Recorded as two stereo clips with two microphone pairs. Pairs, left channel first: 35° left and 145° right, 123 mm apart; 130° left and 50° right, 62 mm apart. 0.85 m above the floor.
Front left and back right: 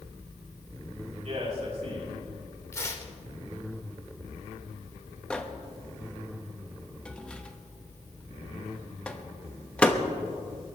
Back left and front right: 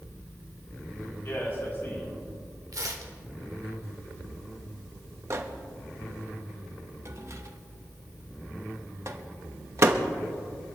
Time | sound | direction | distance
1.2 | a man speaking | straight behind | 5.5 m
2.7 | tearing paper | 35° right | 1.5 m
5.3 | a microwave | 45° right | 1.0 m